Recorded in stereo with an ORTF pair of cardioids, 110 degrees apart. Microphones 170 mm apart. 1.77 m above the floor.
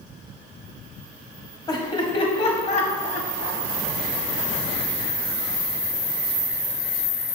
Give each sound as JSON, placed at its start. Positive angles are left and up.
{"t": 1.7, "sound": "laughter", "azimuth_deg": 20, "distance_m": 1.6}